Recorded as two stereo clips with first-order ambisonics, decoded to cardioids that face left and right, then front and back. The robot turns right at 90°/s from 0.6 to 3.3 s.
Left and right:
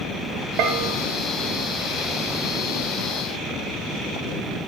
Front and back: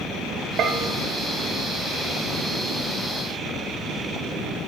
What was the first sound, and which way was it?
A bell, 130° right.